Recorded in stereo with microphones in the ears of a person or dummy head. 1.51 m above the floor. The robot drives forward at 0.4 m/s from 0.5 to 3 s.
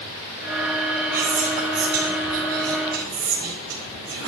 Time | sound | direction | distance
1.1 | whispering | 85° right | 2.5 m